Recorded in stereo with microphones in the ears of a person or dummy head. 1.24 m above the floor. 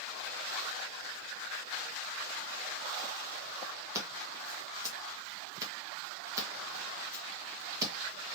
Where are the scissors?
15° right (ahead or behind), 1.1 m.